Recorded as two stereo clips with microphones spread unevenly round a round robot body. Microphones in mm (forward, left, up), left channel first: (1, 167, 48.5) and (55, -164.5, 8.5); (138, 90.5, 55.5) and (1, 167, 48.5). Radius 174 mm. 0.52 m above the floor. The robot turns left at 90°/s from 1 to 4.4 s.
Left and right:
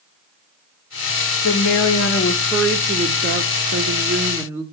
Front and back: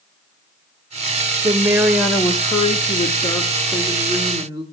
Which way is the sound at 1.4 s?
115° left.